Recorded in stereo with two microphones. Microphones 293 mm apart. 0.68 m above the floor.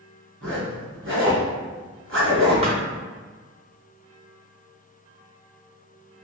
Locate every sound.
0.4 s a zipper: 45° right (ahead or behind), 1.7 m
2.6 s a thud: 20° right (ahead or behind), 0.9 m